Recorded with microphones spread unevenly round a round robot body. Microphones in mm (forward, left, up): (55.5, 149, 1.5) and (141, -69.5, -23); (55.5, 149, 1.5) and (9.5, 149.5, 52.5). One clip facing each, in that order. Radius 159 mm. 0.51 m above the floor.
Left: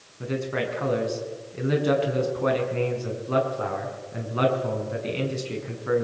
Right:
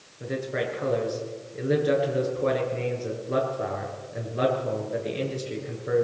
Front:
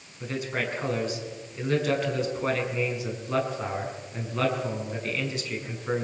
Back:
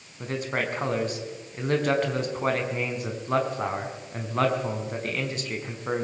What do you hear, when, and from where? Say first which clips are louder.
0.2 s a man speaking: left 1 dB, back 2 dB; 155° left, 6 m